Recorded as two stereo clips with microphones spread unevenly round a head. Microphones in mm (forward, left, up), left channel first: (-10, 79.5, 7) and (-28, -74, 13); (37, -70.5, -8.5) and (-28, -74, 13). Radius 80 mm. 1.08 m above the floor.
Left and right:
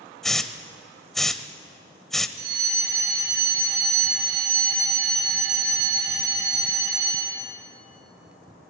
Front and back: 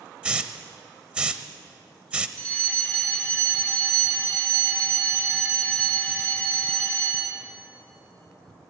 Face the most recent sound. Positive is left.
turn(degrees=-70)